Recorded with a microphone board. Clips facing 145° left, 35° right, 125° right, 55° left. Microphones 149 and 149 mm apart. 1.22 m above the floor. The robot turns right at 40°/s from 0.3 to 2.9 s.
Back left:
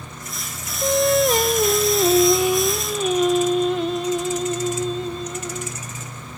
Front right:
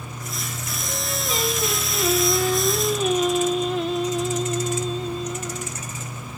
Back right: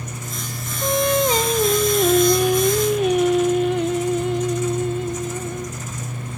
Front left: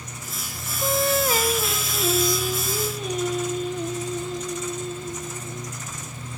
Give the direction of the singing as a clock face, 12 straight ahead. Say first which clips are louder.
Back left 15 dB, back right 4 dB; 7 o'clock.